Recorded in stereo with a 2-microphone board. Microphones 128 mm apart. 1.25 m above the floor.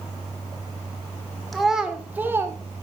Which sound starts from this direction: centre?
A child speaking, at 1.5 s.